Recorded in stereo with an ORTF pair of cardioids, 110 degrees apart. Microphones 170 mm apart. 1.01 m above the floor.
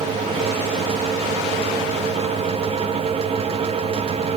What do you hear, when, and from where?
0.0 s a fan: 35° right, 0.9 m